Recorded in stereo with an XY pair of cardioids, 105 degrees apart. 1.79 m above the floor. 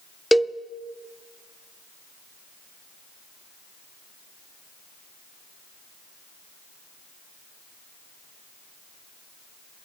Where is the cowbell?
10° left, 0.6 m.